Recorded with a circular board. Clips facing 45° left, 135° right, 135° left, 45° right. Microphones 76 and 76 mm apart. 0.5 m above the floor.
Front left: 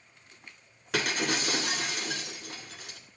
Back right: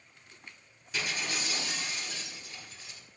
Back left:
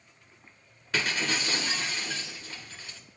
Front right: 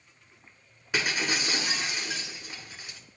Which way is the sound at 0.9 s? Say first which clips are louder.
Front left 6 dB, front right 1 dB; 30° left.